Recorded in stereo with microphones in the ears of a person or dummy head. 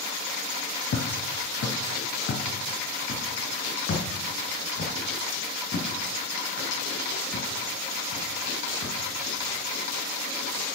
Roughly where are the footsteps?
Left.